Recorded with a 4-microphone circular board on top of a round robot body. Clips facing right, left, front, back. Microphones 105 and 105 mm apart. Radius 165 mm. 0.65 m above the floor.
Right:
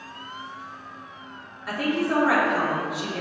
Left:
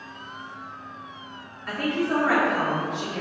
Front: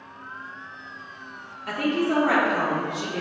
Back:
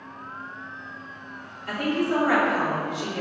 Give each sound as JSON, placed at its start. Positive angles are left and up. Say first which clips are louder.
{"t": 1.7, "sound": "a woman speaking", "louder": "right 1 dB, front 1 dB", "azimuth_deg": -5, "distance_m": 1.1}